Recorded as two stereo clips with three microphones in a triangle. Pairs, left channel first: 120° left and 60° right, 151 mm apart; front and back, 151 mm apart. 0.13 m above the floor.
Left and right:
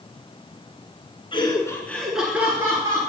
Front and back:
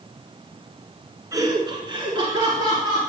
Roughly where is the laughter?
Behind left.